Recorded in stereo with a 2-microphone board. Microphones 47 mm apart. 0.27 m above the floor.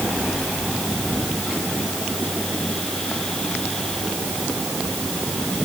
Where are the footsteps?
No footsteps in this recording.